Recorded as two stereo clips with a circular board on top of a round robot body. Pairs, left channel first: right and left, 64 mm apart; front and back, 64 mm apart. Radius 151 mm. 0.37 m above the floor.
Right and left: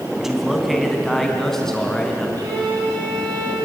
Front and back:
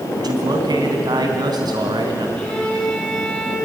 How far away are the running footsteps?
No running footsteps in this recording.